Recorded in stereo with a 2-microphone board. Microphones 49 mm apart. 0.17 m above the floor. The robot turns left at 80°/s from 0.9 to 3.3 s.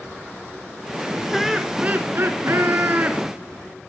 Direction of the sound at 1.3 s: 5° left.